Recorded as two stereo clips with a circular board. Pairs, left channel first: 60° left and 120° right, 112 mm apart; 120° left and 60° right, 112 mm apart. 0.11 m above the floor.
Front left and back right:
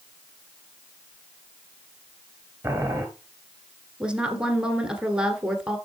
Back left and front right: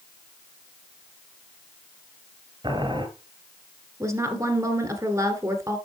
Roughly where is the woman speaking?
Ahead right.